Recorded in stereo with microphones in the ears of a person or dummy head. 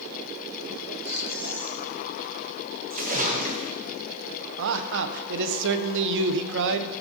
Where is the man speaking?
70° right (ahead or behind), 0.8 m.